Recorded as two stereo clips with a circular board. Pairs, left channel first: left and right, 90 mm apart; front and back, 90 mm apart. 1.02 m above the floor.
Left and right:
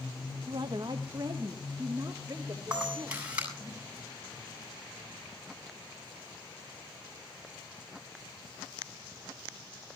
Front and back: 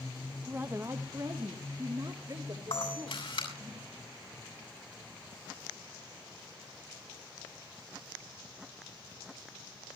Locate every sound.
0.5 s a woman speaking: 110° right, 0.9 m; by 3.7 s 150° right, 3.5 m
2.7 s a camera shutter: 15° right, 8 m